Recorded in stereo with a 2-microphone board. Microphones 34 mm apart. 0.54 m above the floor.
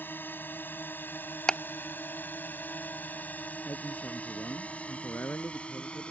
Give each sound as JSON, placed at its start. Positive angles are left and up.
{"t": 0.0, "sound": "a drone", "side_deg": 70}
{"t": 1.5, "sound": "ticking", "side_deg": 25}
{"t": 3.6, "sound": "a man speaking", "side_deg": 75}